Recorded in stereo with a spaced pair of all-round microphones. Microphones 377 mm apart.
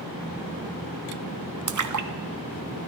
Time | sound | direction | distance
1.7 | a splash | 55° right (ahead or behind) | 0.5 m